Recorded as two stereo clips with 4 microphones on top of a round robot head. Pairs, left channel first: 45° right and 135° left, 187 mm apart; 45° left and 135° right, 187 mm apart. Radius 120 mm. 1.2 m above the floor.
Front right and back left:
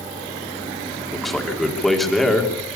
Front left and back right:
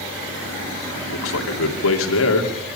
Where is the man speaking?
45° left, 3 m.